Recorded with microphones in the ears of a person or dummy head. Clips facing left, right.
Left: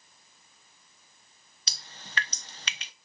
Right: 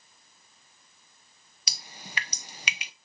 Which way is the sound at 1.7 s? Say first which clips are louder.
Right 3 dB; 15° right (ahead or behind).